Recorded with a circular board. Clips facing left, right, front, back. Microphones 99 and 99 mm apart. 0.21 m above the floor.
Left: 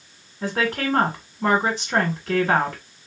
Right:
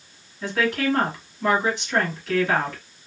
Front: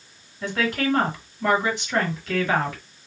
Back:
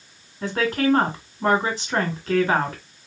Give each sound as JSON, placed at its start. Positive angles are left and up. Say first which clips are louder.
{"t": 0.4, "sound": "a woman speaking", "louder": "right 1 dB, back 3 dB", "azimuth_deg": 135, "distance_m": 2.0}